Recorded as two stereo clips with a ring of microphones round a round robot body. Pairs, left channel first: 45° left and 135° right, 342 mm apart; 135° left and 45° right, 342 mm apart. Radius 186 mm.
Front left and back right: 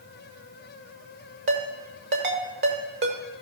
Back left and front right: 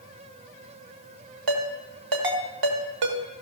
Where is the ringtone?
75° right, 1.4 m.